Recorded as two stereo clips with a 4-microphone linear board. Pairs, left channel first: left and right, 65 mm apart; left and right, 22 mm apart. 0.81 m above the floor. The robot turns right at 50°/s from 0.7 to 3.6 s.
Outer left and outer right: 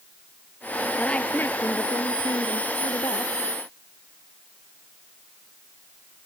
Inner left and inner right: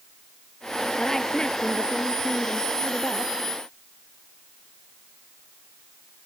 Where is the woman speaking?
10° left; by 3.3 s 125° left.